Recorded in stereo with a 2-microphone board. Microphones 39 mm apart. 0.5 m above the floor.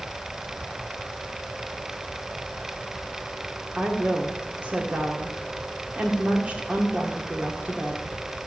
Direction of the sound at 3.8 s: 35° right (ahead or behind).